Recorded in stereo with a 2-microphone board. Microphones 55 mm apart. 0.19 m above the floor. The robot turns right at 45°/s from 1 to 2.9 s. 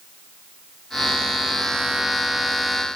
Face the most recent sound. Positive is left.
No sound to turn to.